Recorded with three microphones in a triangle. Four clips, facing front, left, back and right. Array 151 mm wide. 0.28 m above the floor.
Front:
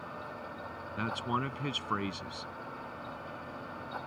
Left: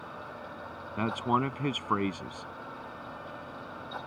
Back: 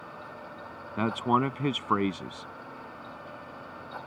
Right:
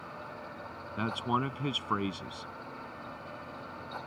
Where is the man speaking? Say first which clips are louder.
Left 3 dB, back 8 dB; 155° left.